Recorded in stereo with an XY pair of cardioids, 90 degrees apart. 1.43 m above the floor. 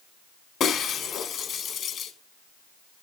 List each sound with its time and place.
0.6 s breaking glass: 65° left, 4.5 m